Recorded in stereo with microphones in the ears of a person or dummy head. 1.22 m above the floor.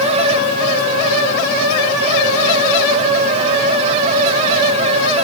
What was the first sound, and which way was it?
Only background noise.